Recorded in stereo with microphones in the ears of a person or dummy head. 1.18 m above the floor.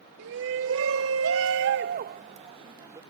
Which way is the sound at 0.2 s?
65° right (ahead or behind).